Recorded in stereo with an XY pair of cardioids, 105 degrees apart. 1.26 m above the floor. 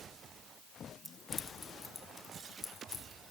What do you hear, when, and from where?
1.1 s keys jangling: straight ahead, 0.8 m; by 3.0 s 35° left, 3.5 m